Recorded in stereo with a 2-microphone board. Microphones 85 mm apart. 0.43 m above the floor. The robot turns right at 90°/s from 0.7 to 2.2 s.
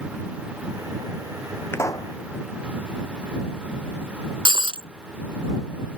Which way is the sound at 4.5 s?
80° right.